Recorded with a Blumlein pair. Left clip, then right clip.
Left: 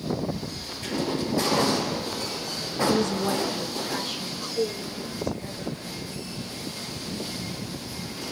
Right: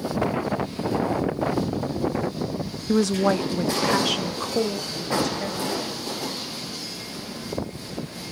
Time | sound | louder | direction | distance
2.9 | a woman speaking | right 7 dB | 70° right | 0.8 m